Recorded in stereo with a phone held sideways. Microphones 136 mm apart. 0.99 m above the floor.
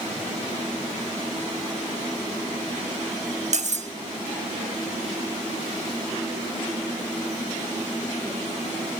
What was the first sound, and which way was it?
Cutlery clinking, 60° right (ahead or behind).